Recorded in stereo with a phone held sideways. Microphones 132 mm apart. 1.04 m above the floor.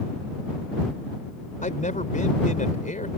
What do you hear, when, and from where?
1.6 s a man speaking: 75° left (ahead or behind)